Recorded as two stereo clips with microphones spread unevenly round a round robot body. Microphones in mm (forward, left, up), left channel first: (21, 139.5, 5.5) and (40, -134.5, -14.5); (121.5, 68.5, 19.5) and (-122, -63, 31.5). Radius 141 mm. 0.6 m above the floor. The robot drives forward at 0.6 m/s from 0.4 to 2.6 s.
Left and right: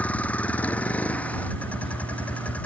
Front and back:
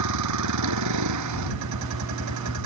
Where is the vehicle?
Straight behind.